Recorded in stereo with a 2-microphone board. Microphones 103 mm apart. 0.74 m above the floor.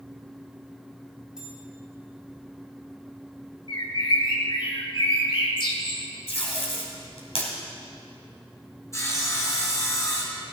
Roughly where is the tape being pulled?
Left.